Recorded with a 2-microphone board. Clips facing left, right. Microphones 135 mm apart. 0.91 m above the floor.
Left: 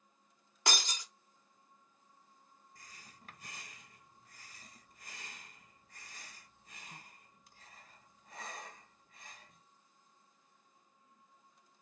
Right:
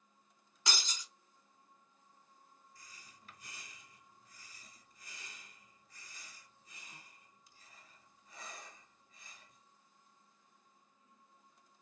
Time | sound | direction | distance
0.7 | breaking glass | 65° left (ahead or behind) | 1.0 m
2.8 | breathing | 60° left (ahead or behind) | 1.1 m